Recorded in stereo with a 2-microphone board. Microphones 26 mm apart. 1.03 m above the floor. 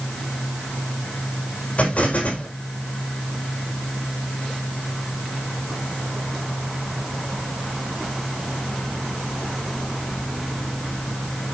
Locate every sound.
1.8 s an explosion: 50° left (ahead or behind), 5 m